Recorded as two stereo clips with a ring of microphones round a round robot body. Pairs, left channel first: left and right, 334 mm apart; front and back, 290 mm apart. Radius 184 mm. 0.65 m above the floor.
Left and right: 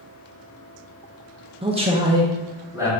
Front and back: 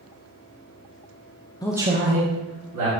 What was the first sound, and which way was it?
A man speaking, 50° right.